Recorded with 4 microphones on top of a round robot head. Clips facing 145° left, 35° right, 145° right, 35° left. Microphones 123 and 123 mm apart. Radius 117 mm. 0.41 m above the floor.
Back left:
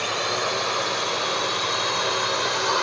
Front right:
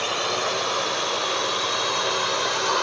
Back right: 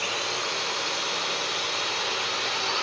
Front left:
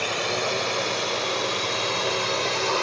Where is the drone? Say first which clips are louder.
Even, front left 5 dB; 50° left.